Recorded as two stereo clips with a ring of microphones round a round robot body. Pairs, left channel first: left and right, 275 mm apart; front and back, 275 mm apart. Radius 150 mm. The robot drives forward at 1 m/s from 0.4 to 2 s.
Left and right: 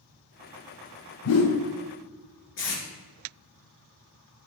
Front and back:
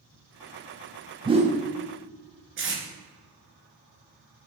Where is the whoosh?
105° left, 0.9 m; by 1.6 s 125° left, 1.1 m.